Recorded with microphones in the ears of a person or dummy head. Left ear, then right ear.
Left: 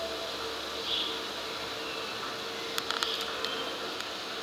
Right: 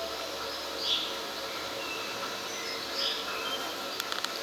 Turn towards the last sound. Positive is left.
turn(degrees=-80)